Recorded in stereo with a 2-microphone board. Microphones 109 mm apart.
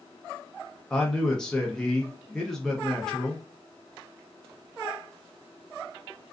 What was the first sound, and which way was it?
A man speaking, 5° left (ahead or behind).